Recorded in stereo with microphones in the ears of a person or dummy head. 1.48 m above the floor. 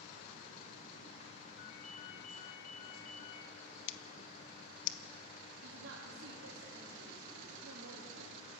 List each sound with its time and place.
1.6 s a ringtone: 50° left (ahead or behind), 2 m
3.9 s scissors: 70° left (ahead or behind), 0.9 m
5.6 s a woman speaking: 75° right (ahead or behind), 3 m